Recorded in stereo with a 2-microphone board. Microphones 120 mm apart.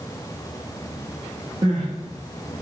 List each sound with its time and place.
1.6 s crying: 40° right (ahead or behind), 2 m